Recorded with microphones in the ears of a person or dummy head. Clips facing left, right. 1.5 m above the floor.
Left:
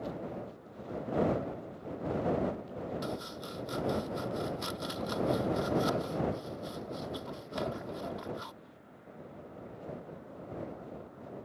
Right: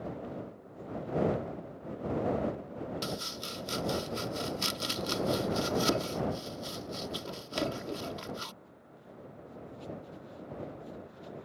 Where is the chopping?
45° right (ahead or behind).